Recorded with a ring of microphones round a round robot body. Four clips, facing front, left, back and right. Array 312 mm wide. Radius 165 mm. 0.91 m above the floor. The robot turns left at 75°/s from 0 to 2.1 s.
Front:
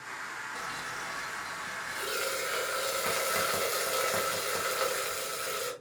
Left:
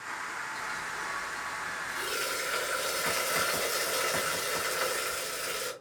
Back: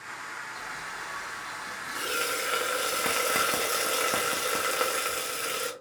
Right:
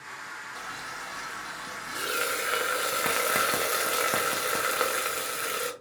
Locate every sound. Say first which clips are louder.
0.6 s frying: left 2 dB, even; 15° right, 0.7 m; by 5.7 s 130° right, 0.7 m